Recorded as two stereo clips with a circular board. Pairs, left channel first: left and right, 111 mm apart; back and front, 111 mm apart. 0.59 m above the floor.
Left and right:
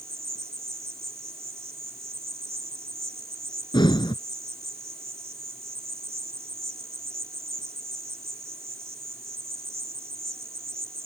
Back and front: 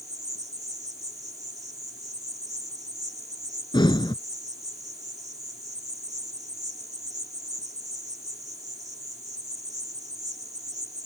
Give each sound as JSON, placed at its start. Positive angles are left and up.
{"t": 0.0, "sound": "an insect", "azimuth_deg": -35}
{"t": 3.7, "sound": "breathing", "azimuth_deg": 135}